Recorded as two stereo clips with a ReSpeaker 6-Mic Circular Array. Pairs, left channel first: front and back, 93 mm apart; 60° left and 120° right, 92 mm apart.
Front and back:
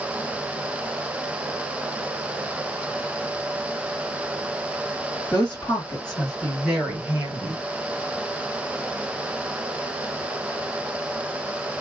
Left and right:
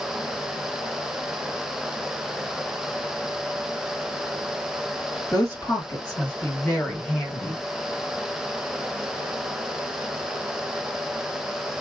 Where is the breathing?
I don't hear breathing.